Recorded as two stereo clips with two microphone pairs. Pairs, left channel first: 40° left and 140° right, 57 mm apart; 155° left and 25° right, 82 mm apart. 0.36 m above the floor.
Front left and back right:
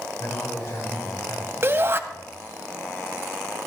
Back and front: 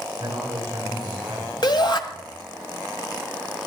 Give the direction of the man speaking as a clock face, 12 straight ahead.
11 o'clock.